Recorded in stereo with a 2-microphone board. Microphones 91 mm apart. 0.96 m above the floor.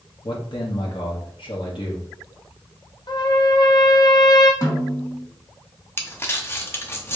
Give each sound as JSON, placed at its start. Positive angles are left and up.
{"t": 0.2, "sound": "a man speaking", "side_deg": 60, "distance_m": 0.9}
{"t": 3.1, "sound": "a trumpet", "side_deg": 45, "distance_m": 0.6}
{"t": 4.6, "sound": "a snare drum", "side_deg": 45, "distance_m": 1.6}
{"t": 6.0, "sound": "crumpling", "side_deg": 25, "distance_m": 0.6}